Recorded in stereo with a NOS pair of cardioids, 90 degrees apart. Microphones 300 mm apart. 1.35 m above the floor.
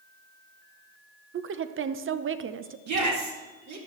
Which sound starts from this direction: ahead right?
A woman speaking, at 1.3 s.